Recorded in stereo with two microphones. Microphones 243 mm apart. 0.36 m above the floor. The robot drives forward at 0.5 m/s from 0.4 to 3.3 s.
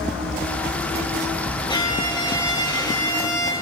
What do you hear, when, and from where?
1.7 s a violin: 20° left (ahead or behind), 4.5 m